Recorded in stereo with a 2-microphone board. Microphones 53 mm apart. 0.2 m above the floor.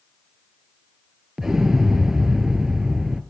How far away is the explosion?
About 0.6 m.